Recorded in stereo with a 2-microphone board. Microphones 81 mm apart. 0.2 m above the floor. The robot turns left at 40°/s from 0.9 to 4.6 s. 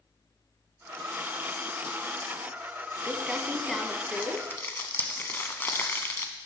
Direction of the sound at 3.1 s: 20° right (ahead or behind).